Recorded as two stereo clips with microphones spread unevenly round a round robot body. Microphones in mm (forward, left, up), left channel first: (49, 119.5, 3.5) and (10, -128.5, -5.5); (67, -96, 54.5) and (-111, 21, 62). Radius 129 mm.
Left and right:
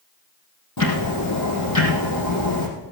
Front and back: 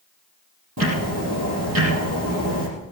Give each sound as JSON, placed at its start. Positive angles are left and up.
{"t": 0.8, "sound": "ticking", "azimuth_deg": 115, "distance_m": 4.5}